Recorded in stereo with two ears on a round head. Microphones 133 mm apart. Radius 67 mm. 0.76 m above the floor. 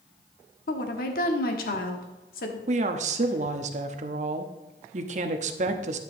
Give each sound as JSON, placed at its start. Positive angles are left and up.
{"t": 0.7, "sound": "a woman speaking", "side_deg": 65, "distance_m": 1.4}
{"t": 2.7, "sound": "a woman speaking", "side_deg": -50, "distance_m": 0.9}